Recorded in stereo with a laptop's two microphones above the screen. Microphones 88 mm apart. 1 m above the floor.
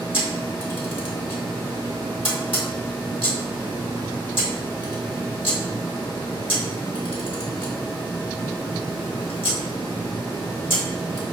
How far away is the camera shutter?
About 1.3 m.